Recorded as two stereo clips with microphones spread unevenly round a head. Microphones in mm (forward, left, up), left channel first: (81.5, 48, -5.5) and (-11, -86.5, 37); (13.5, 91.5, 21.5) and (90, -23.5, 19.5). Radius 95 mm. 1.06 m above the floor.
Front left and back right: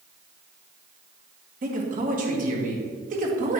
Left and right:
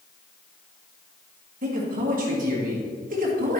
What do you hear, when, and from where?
1.6 s a man speaking: 80° right, 1.7 m